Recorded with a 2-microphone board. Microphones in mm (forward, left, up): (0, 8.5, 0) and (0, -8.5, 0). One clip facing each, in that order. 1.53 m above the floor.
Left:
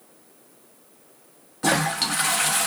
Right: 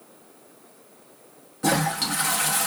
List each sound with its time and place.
1.6 s a toilet flushing: 20° left (ahead or behind), 0.6 m